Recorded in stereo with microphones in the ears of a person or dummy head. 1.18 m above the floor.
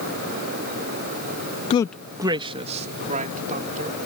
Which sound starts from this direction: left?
A man speaking, at 1.7 s.